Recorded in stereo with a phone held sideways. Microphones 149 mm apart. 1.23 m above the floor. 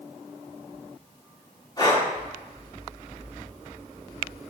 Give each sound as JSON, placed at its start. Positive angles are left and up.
{"t": 1.8, "sound": "breathing", "side_deg": 30, "distance_m": 7.5}